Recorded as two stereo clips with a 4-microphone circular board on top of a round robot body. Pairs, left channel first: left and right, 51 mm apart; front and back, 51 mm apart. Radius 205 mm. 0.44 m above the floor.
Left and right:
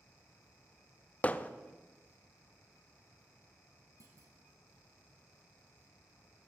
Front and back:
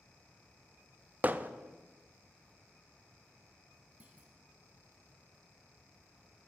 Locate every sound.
1.2 s hammering: 140° left, 0.8 m
4.0 s a clunk: 115° right, 0.6 m